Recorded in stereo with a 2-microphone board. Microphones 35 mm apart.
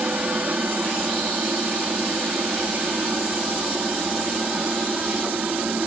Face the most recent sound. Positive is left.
turn(degrees=-55)  # may be behind; listen again after turning